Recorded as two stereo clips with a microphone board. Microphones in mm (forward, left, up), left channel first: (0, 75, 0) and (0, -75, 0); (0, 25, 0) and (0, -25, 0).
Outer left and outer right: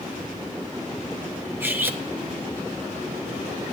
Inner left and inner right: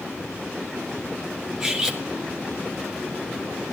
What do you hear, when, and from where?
1.6 s cutlery clinking: 15° right (ahead or behind), 1.5 m